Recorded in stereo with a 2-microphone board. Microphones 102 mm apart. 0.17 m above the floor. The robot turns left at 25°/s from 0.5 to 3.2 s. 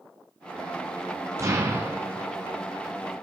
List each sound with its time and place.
1.4 s an explosion: 30° right (ahead or behind), 1.4 m; by 2.3 s 15° right (ahead or behind), 1.4 m